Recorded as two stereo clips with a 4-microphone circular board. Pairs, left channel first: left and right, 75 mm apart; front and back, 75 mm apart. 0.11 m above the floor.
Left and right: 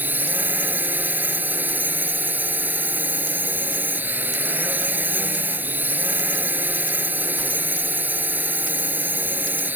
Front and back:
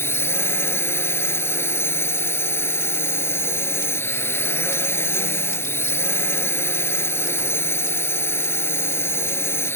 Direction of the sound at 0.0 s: 40° right.